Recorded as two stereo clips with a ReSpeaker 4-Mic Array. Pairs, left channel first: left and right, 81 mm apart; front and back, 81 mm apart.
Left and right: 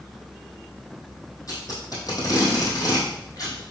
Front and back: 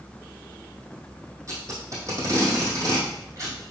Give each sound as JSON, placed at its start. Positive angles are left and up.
{"t": 1.5, "sound": "tape being pulled", "azimuth_deg": 130, "distance_m": 2.5}